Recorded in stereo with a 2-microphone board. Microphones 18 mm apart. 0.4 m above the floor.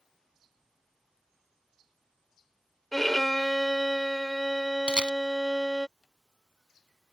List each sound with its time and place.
2.9 s a violin: 15° left (ahead or behind)
4.9 s a camera shutter: 60° right (ahead or behind)